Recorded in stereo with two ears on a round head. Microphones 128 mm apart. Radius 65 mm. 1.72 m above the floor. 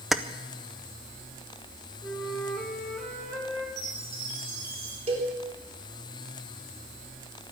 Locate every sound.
0.1 s keys jangling: centre (ahead or behind), 0.6 m
2.0 s a flute: 10° left (ahead or behind), 4.5 m
3.8 s a chime: 75° right (ahead or behind), 4 m
5.1 s a cowbell: 45° right (ahead or behind), 4 m